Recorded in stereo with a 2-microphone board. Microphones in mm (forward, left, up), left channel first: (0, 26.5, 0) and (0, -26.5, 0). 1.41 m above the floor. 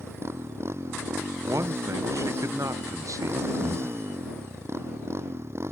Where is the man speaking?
65° right (ahead or behind).